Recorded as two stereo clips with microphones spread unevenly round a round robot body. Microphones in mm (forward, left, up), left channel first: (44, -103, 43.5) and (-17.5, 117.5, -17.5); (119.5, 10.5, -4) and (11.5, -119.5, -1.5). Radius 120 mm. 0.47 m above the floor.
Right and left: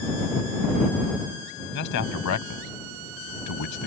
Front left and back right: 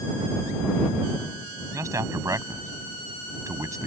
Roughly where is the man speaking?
Ahead right.